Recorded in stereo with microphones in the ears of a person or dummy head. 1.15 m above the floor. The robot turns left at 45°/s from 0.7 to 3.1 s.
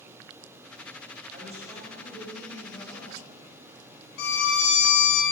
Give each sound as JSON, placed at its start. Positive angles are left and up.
{"t": 1.3, "sound": "a man speaking", "azimuth_deg": -140, "distance_m": 4.0}
{"t": 4.2, "sound": "a violin", "side_deg": 60, "distance_m": 1.5}